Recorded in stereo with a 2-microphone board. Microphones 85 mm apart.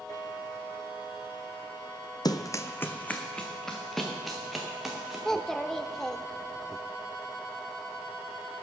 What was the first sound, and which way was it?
Running footsteps, 50° left (ahead or behind).